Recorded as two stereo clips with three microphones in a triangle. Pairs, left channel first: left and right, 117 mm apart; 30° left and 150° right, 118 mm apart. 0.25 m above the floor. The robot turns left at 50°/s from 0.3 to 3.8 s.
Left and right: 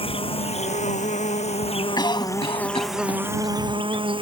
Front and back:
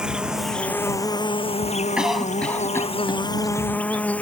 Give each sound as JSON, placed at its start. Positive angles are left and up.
{"t": 0.0, "sound": "an insect", "azimuth_deg": 125}
{"t": 2.0, "sound": "a cough", "azimuth_deg": 130}